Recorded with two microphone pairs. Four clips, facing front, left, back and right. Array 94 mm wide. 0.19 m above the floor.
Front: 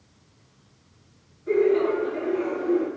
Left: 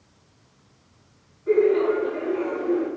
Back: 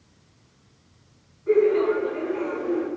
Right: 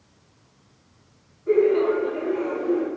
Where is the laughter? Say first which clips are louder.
Even, back 1 dB; 125° left, 1.7 m.